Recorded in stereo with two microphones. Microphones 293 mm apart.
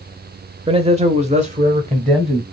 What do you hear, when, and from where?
0.7 s a man speaking: 20° right (ahead or behind), 0.9 m